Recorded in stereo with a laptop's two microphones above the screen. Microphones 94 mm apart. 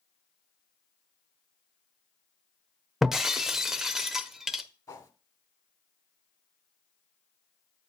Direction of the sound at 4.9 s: 35° left (ahead or behind).